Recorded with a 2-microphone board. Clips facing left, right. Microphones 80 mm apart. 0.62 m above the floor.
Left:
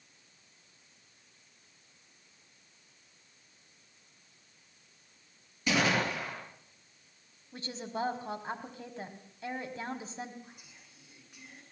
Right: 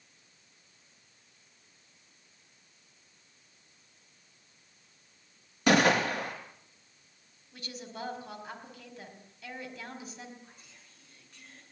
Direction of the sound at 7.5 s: 30° left (ahead or behind).